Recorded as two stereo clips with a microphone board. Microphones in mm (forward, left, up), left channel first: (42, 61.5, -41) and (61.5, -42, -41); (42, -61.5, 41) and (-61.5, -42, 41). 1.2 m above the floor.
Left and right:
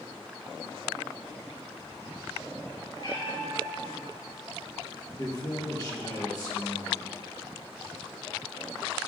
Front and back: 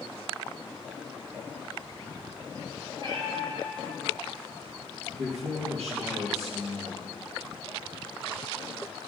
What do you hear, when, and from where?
3.0 s a cat meowing: 140° left, 2 m
5.2 s a man speaking: 155° left, 1.8 m